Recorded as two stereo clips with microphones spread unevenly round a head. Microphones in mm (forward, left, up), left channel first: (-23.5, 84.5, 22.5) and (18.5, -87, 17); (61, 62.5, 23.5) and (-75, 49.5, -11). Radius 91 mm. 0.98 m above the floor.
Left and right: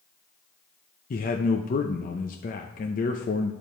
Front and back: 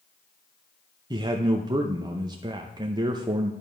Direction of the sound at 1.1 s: 140° left.